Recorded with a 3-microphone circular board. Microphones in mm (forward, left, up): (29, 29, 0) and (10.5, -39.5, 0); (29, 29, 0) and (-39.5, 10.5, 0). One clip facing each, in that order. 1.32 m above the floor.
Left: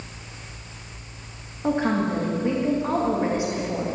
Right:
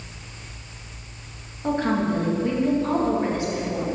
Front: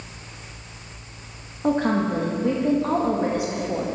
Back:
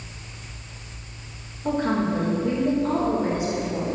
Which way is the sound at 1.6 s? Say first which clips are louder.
Even, front 2 dB; straight ahead.